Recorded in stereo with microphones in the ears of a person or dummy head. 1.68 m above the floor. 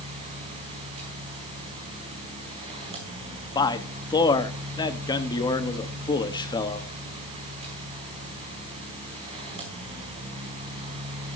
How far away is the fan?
About 4.5 m.